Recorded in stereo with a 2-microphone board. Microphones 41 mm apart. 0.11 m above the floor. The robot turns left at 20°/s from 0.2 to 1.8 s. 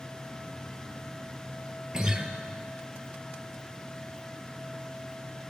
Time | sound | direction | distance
1.9 | a guitar | 20° right (ahead or behind) | 0.7 m